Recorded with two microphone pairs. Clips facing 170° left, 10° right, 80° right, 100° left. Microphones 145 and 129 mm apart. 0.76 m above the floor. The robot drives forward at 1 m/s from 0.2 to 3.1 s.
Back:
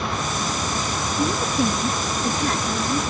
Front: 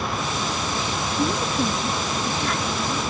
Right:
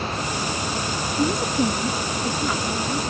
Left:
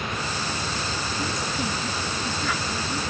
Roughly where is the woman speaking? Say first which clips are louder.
Back 2 dB, right 10 dB; right.